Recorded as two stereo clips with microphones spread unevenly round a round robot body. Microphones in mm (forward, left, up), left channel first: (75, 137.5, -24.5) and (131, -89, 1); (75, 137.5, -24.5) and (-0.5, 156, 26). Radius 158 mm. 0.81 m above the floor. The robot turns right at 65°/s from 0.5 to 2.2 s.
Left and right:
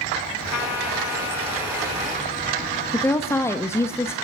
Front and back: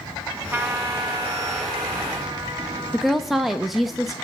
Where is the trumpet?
105° left, 3.5 m; by 3.4 s 145° right, 3.5 m.